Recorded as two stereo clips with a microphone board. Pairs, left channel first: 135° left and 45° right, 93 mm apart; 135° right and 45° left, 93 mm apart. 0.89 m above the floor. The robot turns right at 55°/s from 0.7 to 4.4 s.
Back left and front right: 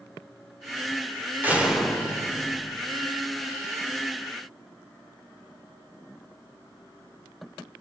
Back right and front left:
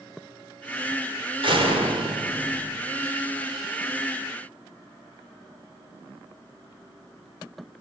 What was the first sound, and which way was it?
A door slam, 25° left.